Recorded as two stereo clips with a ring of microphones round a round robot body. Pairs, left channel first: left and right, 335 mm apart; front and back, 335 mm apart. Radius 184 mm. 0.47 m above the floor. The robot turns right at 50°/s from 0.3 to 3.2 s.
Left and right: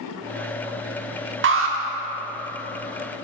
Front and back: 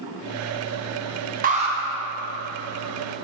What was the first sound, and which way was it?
An alarm, 125° right.